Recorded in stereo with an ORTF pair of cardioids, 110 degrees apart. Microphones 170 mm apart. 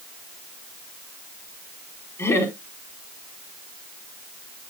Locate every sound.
2.2 s laughter: 15° left, 4.5 m